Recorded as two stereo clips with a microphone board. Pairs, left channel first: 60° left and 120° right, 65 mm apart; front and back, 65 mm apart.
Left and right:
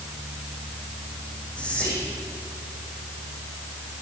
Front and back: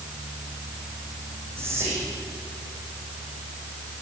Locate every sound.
1.6 s whispering: 130° left, 5.5 m